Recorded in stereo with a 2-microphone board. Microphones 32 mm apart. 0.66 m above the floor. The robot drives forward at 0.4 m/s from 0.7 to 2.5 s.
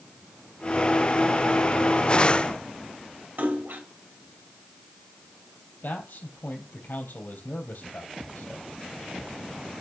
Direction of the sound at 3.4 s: 85° right.